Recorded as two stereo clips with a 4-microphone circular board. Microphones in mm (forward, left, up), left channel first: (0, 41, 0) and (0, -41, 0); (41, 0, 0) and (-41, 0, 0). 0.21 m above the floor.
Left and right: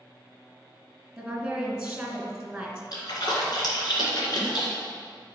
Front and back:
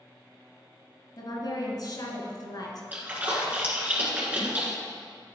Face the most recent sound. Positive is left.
turn(degrees=115)